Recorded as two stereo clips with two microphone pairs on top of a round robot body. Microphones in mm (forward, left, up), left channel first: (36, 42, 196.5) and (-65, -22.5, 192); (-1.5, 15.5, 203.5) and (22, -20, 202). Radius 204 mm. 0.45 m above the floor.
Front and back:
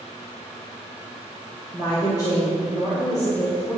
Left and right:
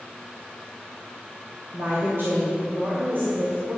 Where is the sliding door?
No sliding door in this recording.